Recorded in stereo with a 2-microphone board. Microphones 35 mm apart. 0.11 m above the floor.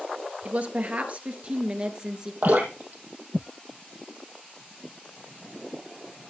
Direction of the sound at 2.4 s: 60° right (ahead or behind).